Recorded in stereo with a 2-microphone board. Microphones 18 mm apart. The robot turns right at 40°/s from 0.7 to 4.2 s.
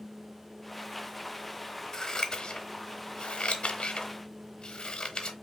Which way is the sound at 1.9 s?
40° left (ahead or behind).